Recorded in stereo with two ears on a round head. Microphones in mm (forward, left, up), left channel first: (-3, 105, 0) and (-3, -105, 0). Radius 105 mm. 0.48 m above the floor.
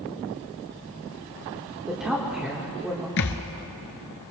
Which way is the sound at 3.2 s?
55° left (ahead or behind).